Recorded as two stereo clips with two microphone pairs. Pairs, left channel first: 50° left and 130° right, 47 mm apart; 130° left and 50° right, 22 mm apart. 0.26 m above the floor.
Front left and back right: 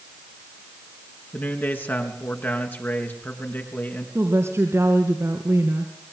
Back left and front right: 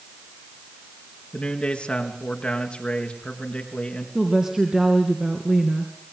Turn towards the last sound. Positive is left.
turn(degrees=-115)